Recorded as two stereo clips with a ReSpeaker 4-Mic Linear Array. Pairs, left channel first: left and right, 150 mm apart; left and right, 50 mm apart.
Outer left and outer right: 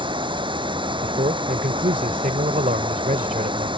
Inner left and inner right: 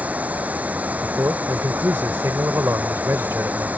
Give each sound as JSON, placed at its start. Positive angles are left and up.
{"t": 0.0, "sound": "running water", "side_deg": -30}
{"t": 1.0, "sound": "a man speaking", "side_deg": -65}